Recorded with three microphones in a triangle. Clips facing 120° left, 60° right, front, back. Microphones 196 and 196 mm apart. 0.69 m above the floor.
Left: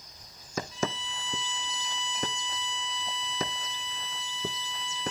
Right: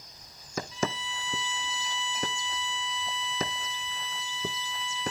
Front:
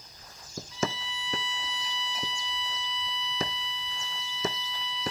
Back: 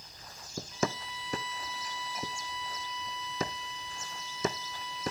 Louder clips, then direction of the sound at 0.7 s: Right 2 dB, front 1 dB; 160° left.